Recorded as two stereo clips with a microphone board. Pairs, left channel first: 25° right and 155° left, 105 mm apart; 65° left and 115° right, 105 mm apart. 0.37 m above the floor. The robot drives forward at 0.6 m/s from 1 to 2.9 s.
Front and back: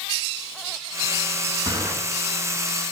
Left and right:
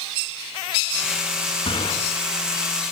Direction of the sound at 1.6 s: 105° left.